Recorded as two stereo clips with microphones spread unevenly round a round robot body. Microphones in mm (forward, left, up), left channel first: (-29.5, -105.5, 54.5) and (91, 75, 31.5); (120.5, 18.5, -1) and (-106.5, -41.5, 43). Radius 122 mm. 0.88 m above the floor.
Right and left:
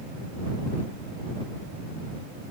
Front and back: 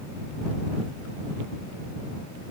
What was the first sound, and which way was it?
Only background noise.